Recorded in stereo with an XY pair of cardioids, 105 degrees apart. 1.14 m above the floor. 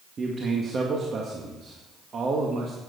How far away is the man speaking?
About 1.9 m.